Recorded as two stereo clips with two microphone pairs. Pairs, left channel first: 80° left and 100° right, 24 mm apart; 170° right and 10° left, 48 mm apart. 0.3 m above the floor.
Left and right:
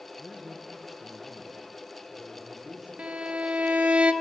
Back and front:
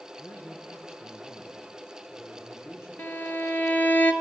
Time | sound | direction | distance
0.2 | a man speaking | 175° right | 5 m
3.0 | a violin | 120° right | 1.2 m